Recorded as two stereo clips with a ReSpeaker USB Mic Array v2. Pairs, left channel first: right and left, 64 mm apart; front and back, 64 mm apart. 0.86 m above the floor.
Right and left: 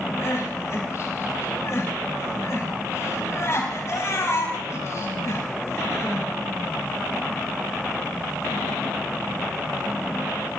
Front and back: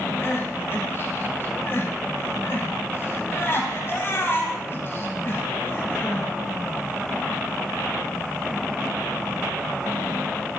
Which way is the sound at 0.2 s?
50° right.